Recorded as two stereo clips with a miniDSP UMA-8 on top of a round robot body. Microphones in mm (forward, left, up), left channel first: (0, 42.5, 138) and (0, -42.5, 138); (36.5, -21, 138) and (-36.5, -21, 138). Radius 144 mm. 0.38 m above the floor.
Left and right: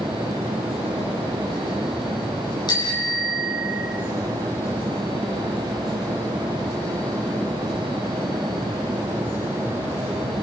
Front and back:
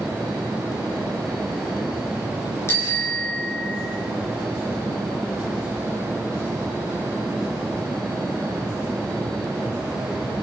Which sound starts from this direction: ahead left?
A bicycle bell, at 2.7 s.